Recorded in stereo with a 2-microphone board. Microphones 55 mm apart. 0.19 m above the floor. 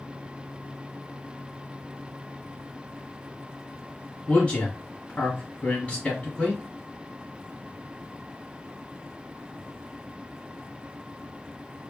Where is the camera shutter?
No camera shutter in this recording.